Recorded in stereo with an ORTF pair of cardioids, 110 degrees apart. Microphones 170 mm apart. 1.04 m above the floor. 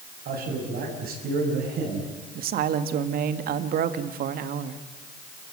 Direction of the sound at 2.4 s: 65° right.